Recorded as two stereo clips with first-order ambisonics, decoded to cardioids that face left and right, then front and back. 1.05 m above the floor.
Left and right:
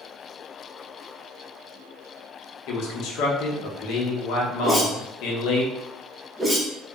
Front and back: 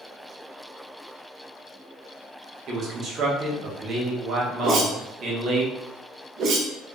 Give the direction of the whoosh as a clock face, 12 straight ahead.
6 o'clock.